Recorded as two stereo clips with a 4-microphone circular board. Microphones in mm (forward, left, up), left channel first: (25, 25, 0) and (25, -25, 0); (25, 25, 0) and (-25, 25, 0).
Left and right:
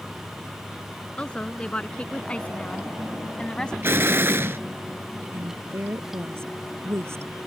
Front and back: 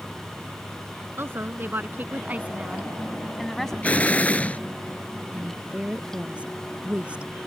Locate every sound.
1.2 s a woman speaking: 155° left; by 3.7 s 55° left
3.8 s an explosion: 55° right
5.3 s a woman speaking: 115° right